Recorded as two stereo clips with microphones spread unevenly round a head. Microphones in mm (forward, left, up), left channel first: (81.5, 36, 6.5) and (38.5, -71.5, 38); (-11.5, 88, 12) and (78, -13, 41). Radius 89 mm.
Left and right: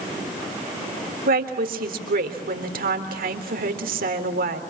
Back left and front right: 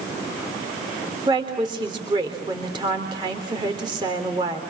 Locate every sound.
1.3 s a woman speaking: 120° right, 3.5 m